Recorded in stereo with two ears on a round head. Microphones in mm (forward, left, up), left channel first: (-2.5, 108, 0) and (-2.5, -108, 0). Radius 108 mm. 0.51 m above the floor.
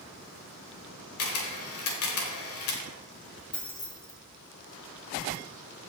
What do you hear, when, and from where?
1.2 s a camera shutter: 65° left (ahead or behind), 1.6 m
3.5 s keys jangling: 20° left (ahead or behind), 1.9 m